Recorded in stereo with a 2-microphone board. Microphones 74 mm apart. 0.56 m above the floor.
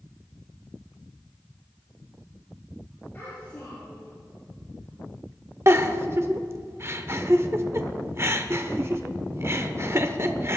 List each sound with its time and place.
3.1 s a child speaking: 25° left (ahead or behind), 7 m
5.7 s a giggle: 35° right (ahead or behind), 1.0 m